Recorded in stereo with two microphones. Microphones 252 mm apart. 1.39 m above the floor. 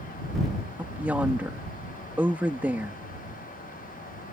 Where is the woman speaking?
5° right (ahead or behind).